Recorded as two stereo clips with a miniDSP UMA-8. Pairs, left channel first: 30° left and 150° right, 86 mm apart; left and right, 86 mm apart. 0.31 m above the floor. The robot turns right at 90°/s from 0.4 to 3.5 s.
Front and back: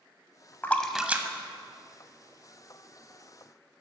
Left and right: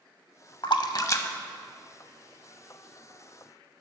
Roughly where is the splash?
Left.